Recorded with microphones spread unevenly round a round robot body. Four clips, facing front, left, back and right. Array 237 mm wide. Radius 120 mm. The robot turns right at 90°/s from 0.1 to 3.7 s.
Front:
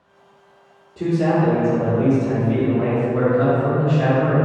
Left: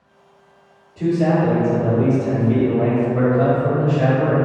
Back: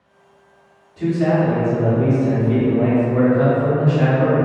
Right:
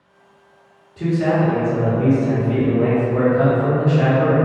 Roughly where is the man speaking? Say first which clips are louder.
Left 1 dB, back 1 dB; ahead.